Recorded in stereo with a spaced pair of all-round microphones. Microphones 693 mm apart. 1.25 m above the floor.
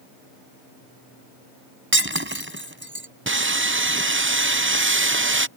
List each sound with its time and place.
1.9 s breaking glass: 15° right (ahead or behind)
3.3 s sawing: 20° right (ahead or behind)